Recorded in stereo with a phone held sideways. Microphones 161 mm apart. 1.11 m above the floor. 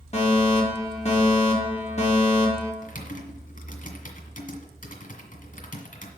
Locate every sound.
0.1 s a fire alarm: 45° left (ahead or behind), 2.5 m
2.8 s typing on a keyboard: 60° left (ahead or behind), 1.8 m